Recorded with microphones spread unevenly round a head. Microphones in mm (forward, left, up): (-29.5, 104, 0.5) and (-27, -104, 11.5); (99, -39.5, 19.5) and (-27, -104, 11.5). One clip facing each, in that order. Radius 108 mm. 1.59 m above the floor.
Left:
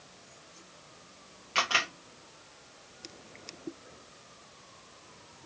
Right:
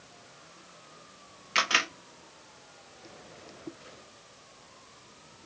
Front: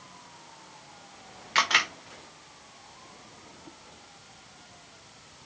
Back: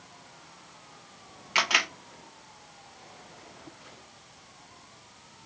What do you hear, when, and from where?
1.6 s a camera shutter: 85° right, 0.9 m